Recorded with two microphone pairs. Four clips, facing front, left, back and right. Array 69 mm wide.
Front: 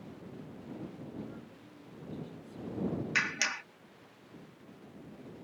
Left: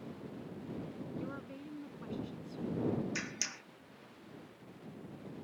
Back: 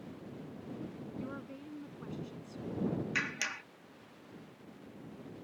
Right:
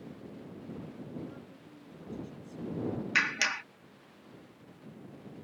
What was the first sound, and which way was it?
A woman speaking, 140° left.